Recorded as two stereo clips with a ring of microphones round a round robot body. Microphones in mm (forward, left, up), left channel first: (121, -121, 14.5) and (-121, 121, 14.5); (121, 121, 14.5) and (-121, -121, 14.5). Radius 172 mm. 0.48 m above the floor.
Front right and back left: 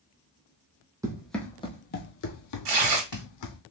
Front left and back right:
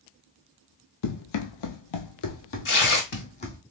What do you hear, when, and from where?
1.0 s running footsteps: 55° left, 0.9 m; by 3.6 s 30° right, 1.4 m
2.6 s tearing paper: 105° left, 1.7 m